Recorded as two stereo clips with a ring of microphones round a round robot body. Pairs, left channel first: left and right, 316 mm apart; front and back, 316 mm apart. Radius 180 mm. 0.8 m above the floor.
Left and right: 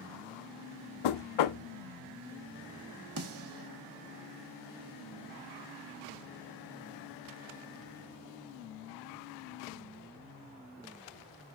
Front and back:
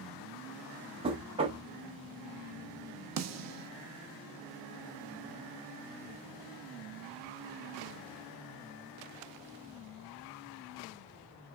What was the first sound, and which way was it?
Knocking, 105° left.